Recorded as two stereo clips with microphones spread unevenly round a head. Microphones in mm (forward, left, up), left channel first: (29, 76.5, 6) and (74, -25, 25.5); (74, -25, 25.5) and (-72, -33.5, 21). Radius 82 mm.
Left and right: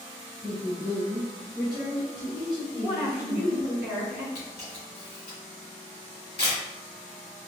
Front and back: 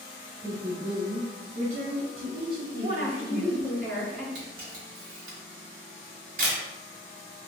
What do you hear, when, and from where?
0.4 s a woman speaking: 65° right, 0.7 m; by 3.8 s straight behind, 1.6 m
2.8 s a woman speaking: 130° right, 1.5 m
4.3 s a camera shutter: 175° left, 1.9 m